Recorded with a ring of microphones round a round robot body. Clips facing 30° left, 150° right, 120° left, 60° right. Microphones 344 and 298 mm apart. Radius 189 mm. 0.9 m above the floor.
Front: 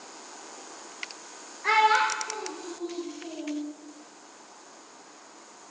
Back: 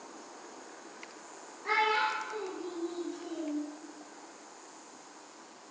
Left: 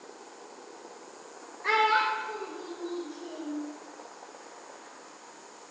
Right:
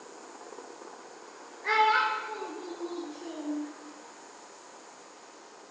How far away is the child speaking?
About 0.7 m.